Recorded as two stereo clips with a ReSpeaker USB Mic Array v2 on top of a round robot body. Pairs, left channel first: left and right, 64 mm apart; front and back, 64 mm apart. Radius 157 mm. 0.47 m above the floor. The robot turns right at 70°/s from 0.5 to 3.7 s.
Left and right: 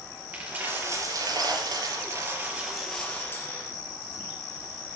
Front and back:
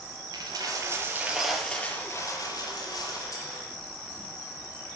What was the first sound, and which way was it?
A dropped coin, 160° right.